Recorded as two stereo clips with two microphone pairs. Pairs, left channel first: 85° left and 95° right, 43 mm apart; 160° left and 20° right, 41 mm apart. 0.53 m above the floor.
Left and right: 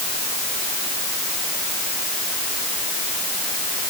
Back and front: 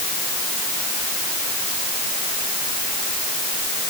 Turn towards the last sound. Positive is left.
No sound to turn to.